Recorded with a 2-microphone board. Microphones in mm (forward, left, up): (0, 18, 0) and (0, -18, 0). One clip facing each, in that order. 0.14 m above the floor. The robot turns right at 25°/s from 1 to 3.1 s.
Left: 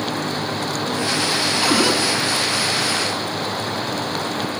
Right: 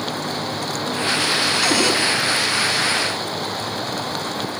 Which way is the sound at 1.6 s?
20° left (ahead or behind).